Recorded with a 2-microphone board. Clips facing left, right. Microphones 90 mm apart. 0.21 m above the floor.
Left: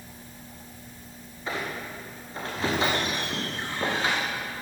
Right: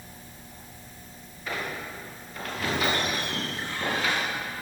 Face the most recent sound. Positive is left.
turn(degrees=25)  # may be behind; listen again after turning